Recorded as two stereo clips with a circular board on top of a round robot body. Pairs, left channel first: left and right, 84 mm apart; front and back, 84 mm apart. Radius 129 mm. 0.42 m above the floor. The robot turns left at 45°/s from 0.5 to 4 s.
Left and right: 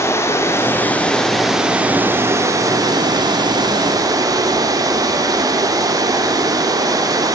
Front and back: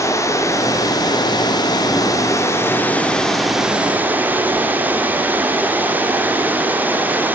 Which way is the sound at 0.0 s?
40° left.